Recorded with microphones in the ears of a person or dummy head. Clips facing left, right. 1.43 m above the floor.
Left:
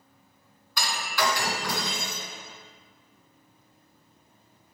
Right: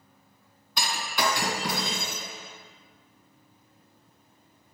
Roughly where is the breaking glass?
Right.